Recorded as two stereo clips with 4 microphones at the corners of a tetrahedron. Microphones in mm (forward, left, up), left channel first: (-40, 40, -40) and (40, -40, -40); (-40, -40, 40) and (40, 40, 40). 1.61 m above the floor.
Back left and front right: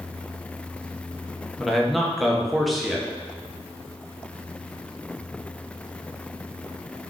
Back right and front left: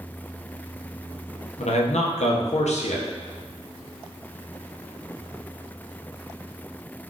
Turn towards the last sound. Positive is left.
turn(degrees=-135)